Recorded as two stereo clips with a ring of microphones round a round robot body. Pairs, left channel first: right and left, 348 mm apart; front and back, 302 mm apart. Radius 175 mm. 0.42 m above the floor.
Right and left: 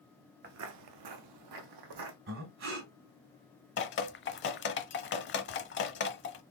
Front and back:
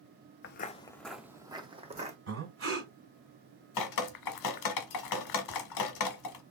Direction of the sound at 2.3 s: 145° left.